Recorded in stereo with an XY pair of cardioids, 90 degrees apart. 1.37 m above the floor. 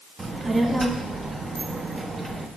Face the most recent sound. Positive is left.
turn(degrees=-35)